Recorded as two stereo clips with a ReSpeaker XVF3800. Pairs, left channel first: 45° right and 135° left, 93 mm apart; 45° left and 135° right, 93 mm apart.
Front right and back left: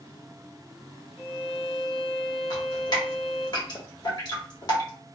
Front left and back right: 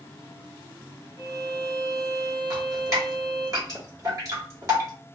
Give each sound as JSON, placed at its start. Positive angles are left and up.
{"t": 1.2, "sound": "a violin", "azimuth_deg": 45, "distance_m": 1.1}
{"t": 2.5, "sound": "dripping", "azimuth_deg": -85, "distance_m": 1.2}